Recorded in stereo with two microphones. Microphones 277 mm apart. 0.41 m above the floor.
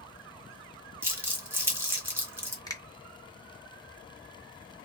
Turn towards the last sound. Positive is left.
turn(degrees=15)  # may be behind; listen again after turning